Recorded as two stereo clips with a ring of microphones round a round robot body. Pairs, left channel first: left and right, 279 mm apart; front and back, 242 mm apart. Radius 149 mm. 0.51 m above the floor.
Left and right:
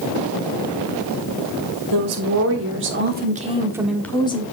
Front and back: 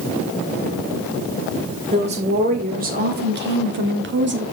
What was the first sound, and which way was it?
A woman speaking, 115° right.